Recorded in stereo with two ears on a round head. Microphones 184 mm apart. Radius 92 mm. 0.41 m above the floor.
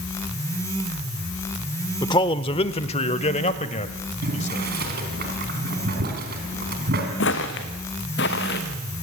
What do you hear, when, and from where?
2.0 s a man speaking: 20° left (ahead or behind), 0.9 m; by 4.6 s 35° left (ahead or behind), 2 m
4.2 s boiling: 50° right (ahead or behind), 4 m
7.2 s footsteps: 60° left (ahead or behind), 2.5 m; by 8.6 s 55° left (ahead or behind), 3 m